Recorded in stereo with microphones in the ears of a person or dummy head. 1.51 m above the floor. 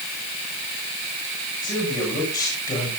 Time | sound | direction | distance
1.6 | a man speaking | 25° left (ahead or behind) | 8 m